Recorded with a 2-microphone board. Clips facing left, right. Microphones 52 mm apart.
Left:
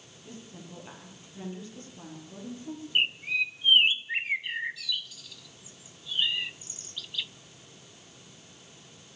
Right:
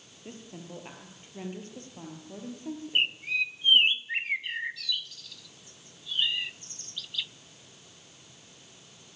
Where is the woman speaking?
40° right (ahead or behind), 6.5 m.